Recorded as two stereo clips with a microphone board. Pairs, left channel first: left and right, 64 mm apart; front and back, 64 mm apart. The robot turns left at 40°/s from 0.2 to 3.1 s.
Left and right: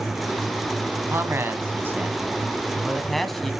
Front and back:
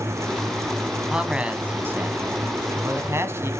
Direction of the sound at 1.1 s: 105° right.